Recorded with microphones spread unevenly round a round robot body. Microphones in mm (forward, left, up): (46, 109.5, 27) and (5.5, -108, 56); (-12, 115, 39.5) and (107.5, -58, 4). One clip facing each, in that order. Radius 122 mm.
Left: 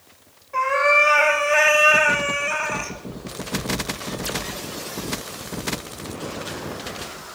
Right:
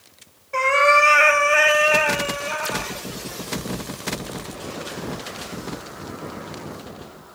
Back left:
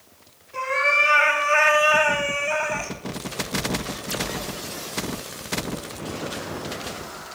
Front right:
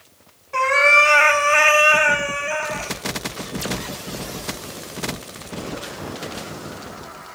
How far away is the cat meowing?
About 1.4 m.